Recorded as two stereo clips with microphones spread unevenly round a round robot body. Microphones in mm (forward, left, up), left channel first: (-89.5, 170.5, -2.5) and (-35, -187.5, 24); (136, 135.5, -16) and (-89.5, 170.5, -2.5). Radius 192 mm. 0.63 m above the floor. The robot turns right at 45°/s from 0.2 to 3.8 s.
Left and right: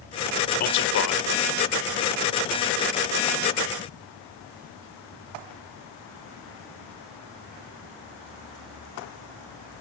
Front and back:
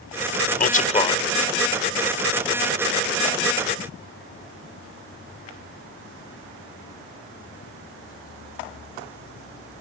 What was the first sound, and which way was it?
A man speaking, 35° left.